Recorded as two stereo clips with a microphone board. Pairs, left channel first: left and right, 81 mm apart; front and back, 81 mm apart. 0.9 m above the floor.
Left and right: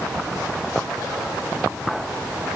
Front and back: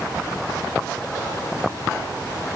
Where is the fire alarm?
No fire alarm in this recording.